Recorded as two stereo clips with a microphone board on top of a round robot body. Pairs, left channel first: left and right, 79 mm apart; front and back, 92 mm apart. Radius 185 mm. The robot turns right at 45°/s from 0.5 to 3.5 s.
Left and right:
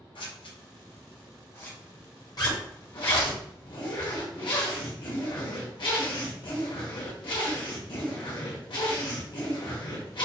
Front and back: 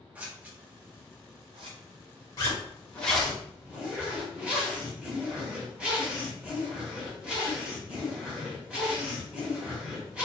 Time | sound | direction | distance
0.1 | scissors | 105° left | 0.9 m
2.4 | a zipper | 50° left | 1.2 m